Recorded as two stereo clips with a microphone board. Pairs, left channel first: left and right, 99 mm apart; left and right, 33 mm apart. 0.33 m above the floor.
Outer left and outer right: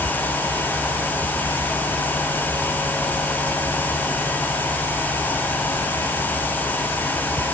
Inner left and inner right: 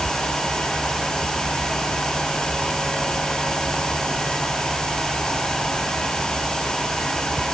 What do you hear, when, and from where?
Only background noise.